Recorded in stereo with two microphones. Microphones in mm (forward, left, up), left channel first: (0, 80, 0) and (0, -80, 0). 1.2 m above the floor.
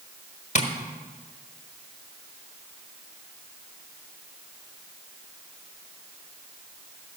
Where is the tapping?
50° left (ahead or behind), 1.2 m.